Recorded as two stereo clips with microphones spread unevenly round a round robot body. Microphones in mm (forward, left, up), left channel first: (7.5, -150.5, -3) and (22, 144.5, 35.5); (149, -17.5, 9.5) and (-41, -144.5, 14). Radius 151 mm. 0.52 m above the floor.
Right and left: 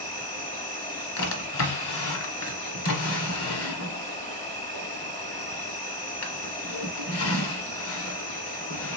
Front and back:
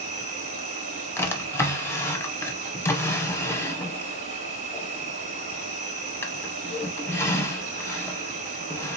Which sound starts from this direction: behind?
An insect, at 0.0 s.